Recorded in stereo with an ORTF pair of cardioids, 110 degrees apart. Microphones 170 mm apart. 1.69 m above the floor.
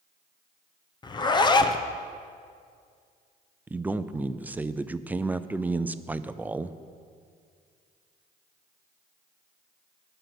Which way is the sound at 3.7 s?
10° right.